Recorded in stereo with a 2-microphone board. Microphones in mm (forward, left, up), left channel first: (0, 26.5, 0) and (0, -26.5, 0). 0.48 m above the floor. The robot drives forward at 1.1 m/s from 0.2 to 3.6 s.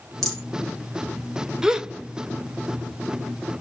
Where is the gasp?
10° right (ahead or behind), 0.9 m; by 3.6 s 5° right (ahead or behind), 1.5 m.